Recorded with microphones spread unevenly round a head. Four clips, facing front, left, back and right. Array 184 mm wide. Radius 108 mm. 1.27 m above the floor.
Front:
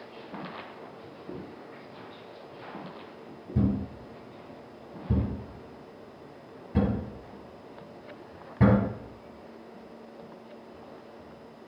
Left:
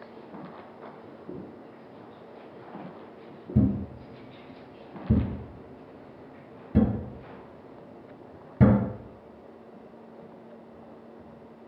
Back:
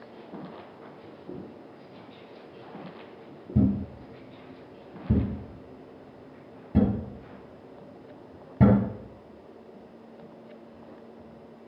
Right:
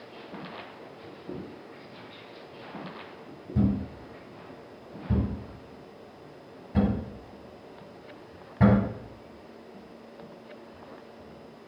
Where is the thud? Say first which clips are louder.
Left 2 dB, back 3 dB; 155° left, 3 m.